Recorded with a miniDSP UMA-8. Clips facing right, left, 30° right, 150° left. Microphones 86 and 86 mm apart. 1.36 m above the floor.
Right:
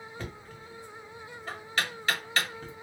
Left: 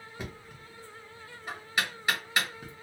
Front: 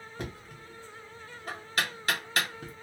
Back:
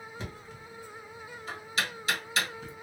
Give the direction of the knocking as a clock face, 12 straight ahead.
12 o'clock.